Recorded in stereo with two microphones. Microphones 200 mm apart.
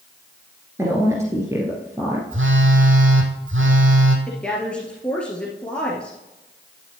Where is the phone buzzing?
80° right, 1.7 m.